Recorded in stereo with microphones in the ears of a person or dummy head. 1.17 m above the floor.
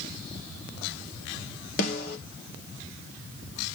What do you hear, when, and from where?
1.8 s a snare drum: 65° left (ahead or behind), 4 m